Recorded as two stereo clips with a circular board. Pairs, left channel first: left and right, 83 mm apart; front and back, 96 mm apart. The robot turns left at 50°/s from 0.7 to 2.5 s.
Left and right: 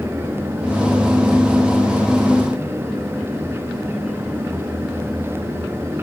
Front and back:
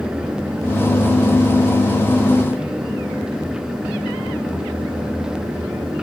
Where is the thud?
I don't hear a thud.